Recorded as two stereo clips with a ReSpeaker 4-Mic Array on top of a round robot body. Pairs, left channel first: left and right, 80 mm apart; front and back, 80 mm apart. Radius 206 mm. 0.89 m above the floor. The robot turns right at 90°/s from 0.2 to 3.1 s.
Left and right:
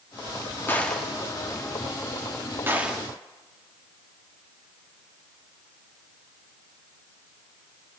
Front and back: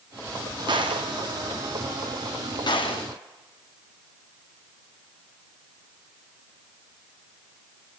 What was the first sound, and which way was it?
A gunshot, 155° left.